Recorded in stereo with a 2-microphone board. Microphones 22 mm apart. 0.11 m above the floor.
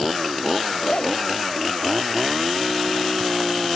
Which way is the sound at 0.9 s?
45° left (ahead or behind).